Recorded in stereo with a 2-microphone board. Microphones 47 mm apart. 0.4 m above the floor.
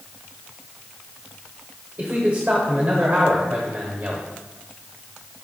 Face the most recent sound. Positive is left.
turn(degrees=-40)  # may be behind; listen again after turning